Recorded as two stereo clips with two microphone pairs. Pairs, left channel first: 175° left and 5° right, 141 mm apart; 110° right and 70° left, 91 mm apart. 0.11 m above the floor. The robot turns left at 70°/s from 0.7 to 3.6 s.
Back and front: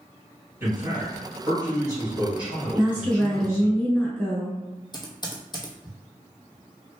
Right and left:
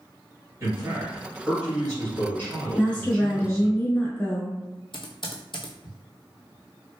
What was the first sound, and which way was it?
A man speaking, 45° left.